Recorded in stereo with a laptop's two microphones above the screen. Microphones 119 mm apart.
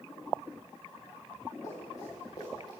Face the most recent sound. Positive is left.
turn(degrees=40)  # may be behind; listen again after turning